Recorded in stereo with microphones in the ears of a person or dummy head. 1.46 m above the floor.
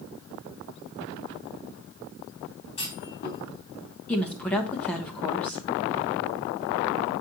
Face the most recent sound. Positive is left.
turn(degrees=0)  # may be behind; listen again after turning